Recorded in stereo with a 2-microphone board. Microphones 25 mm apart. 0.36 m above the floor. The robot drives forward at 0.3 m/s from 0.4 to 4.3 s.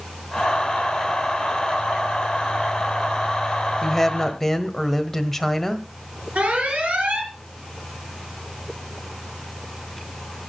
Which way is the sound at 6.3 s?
70° right (ahead or behind).